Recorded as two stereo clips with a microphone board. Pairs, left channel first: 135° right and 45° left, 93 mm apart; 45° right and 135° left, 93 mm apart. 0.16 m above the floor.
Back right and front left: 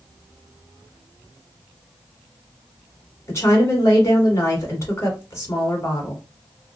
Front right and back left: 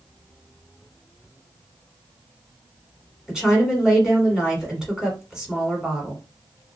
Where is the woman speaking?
150° right, 1.5 m.